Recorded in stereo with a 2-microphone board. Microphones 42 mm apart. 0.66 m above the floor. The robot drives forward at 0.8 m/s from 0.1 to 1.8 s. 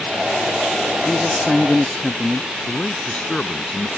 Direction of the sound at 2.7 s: 25° left (ahead or behind).